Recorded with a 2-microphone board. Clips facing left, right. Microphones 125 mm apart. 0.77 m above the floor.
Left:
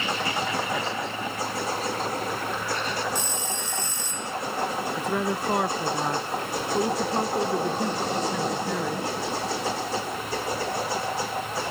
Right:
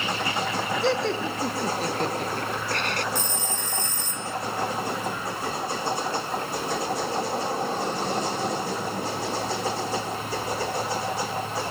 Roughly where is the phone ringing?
Right.